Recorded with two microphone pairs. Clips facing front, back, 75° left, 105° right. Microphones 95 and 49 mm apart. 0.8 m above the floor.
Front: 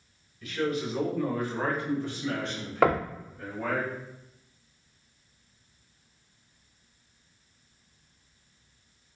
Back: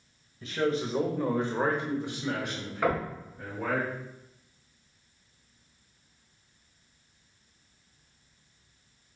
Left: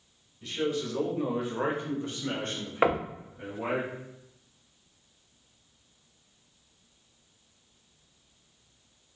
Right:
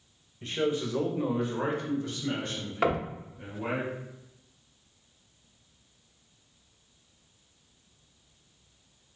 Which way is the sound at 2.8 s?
10° left.